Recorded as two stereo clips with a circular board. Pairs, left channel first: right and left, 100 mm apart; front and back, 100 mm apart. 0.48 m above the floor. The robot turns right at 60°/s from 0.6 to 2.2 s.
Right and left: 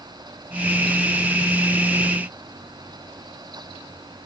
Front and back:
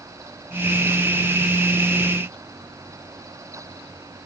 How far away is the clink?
No clink in this recording.